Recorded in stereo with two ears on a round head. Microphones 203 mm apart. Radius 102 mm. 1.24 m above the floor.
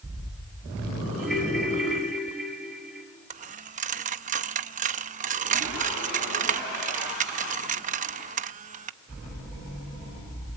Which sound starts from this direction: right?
A dropped coin, at 3.3 s.